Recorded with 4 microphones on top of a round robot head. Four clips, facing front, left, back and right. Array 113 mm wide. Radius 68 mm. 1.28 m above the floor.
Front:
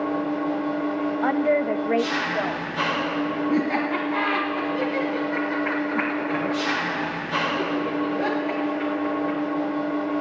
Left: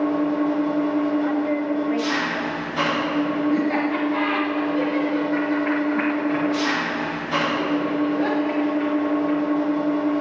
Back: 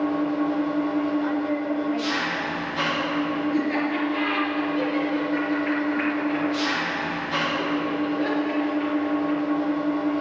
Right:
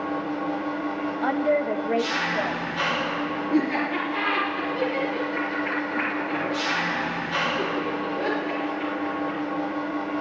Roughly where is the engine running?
Left.